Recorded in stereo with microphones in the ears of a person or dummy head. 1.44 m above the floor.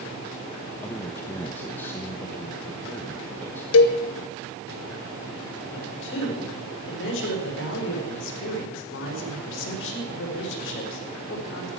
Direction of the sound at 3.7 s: 75° left (ahead or behind).